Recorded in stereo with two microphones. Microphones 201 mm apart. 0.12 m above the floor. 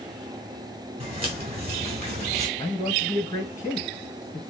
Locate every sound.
1.0 s footsteps: 30° right (ahead or behind), 3 m; by 2.5 s 35° right (ahead or behind), 2 m
2.6 s a man speaking: 15° left (ahead or behind), 1.4 m